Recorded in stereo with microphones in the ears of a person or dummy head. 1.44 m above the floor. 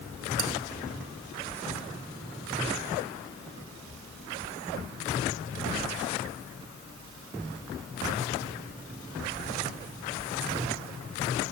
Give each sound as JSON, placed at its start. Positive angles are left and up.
{"t": 0.4, "sound": "cutlery clinking", "side_deg": -45, "distance_m": 2.5}